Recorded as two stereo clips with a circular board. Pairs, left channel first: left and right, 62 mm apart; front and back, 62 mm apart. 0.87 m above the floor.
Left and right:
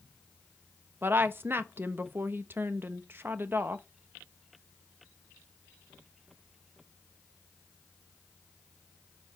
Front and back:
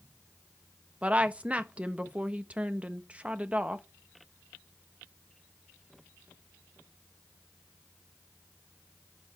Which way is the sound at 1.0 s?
120° right.